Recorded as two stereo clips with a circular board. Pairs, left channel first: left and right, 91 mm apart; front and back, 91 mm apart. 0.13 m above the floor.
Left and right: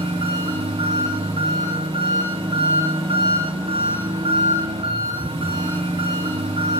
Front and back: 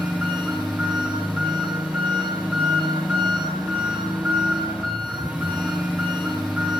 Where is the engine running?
105° right, 10 m.